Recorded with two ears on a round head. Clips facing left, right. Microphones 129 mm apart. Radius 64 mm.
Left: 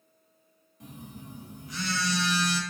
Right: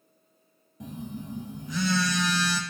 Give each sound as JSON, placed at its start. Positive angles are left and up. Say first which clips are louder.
{"t": 0.8, "sound": "a phone buzzing", "louder": "right 7 dB", "side_deg": -65, "distance_m": 0.8}